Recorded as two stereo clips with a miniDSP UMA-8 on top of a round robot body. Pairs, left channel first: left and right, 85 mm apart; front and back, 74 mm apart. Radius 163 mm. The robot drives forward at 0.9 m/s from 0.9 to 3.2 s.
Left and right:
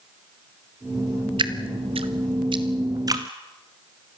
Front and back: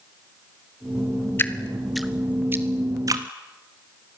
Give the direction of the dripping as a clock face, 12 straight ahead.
2 o'clock.